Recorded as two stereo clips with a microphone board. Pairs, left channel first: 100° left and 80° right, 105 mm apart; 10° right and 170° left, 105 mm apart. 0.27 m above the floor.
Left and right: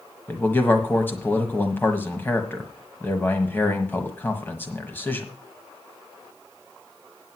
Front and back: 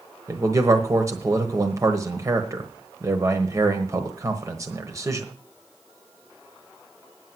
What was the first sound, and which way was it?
A man speaking, 150° left.